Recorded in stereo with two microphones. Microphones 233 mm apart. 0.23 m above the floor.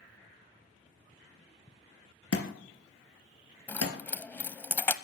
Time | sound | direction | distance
2.3 | a thud | 70° left (ahead or behind) | 2 m
3.7 | keys jangling | 10° left (ahead or behind) | 0.7 m